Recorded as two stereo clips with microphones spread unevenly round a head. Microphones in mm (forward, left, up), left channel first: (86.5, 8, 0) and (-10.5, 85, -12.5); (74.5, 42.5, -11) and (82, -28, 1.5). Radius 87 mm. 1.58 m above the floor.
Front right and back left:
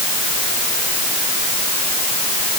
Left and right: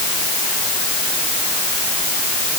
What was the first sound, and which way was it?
Only background noise.